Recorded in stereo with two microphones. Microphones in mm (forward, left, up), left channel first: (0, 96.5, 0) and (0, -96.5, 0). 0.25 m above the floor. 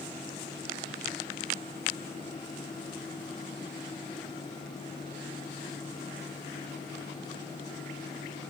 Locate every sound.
Only background noise.